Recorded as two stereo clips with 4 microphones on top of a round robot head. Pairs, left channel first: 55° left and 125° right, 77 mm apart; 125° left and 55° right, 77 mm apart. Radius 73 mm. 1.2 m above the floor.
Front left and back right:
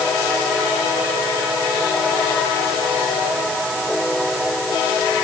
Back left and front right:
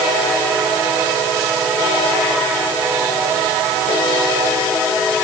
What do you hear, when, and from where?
Only background noise.